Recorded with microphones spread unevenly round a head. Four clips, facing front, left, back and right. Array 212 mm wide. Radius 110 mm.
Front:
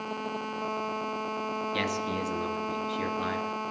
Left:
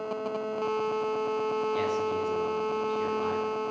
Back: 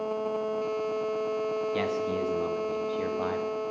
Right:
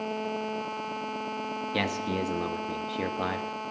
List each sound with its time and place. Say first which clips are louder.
1.7 s a man speaking: left 2 dB, back 2 dB; 90° right, 1.6 m